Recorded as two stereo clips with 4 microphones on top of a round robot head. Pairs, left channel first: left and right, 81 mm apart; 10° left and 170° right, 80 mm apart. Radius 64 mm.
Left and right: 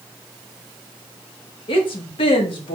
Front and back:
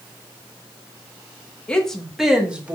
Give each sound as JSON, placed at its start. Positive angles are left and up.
{"t": 1.7, "sound": "a woman speaking", "azimuth_deg": 85, "distance_m": 1.1}